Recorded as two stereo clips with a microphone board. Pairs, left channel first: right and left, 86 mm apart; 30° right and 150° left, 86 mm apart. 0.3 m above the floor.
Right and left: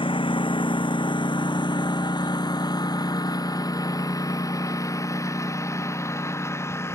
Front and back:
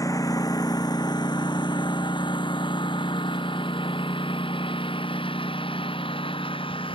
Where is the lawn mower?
80° right; by 7.0 s 30° right.